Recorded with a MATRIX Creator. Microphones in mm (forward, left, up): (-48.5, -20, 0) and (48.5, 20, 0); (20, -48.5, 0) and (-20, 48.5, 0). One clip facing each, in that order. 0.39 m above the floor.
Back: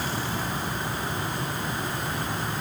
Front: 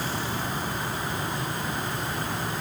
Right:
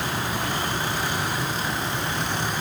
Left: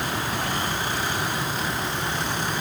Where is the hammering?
No hammering in this recording.